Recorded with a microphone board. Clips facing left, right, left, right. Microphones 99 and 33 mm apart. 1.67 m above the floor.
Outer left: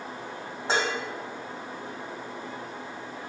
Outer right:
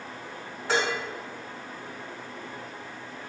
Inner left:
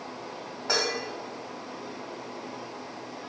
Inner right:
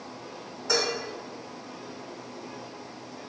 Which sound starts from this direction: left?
Dishes clattering, at 0.7 s.